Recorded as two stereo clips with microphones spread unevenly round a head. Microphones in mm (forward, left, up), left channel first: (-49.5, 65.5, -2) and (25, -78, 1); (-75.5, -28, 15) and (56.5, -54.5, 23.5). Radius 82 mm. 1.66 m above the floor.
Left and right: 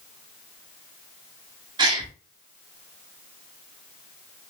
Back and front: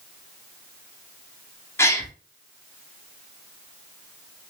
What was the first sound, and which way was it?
A gasp, 120° right.